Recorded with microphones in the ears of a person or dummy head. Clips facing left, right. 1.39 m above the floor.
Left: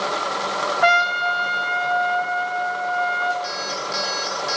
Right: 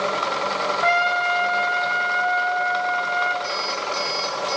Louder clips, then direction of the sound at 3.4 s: Right 1 dB; 5° left (ahead or behind).